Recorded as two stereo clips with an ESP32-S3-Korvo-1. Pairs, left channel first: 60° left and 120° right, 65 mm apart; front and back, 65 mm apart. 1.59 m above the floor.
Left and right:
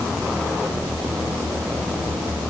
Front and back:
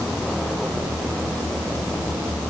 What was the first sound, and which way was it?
Only background noise.